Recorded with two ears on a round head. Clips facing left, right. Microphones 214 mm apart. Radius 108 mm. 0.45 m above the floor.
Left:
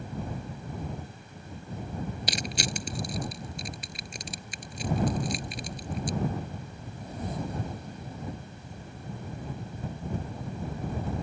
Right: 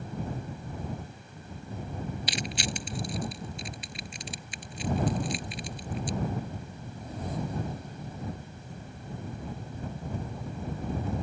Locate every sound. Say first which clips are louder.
2.3 s crushing: left 1 dB; 35° left (ahead or behind)